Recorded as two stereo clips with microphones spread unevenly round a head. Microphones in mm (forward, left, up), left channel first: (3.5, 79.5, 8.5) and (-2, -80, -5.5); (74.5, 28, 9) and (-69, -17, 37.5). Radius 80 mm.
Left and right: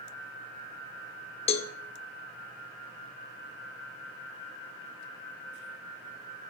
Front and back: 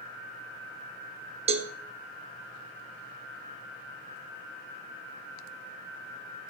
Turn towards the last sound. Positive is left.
turn(degrees=145)